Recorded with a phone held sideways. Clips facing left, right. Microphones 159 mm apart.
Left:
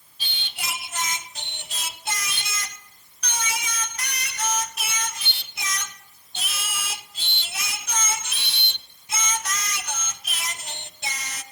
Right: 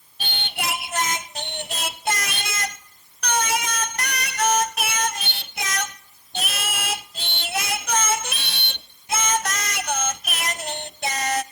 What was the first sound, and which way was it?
Singing, 65° right (ahead or behind).